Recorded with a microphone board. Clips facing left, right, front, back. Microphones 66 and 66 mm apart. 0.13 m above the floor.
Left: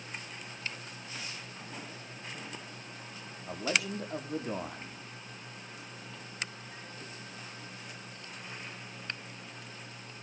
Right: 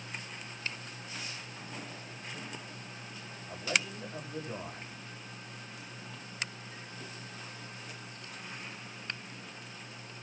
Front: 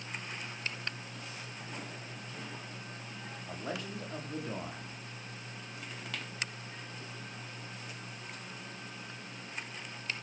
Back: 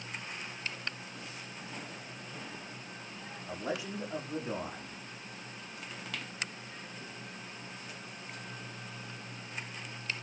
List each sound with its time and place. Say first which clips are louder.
3.5 s a man speaking: left 2 dB, back 3 dB; 100° left, 6.5 m